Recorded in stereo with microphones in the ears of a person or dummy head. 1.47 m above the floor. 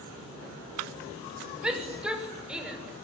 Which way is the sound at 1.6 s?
5° right (ahead or behind).